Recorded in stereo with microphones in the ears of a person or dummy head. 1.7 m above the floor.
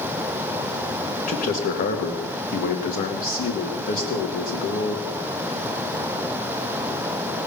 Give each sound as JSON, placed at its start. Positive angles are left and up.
{"t": 1.3, "sound": "a man speaking", "side_deg": 50, "distance_m": 2.0}